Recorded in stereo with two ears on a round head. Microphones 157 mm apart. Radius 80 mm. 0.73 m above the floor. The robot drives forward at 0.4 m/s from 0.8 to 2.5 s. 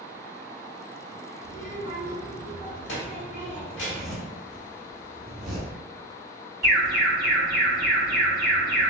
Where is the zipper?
Centre (ahead or behind), 0.7 m.